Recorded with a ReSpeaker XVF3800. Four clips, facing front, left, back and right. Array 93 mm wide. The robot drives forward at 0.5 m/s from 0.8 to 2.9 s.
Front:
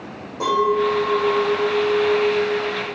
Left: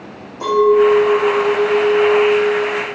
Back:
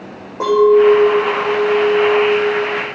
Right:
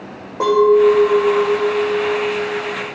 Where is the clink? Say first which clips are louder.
Even, back 9 dB; 130° right, 5 m; by 2.9 s 140° right, 5.5 m.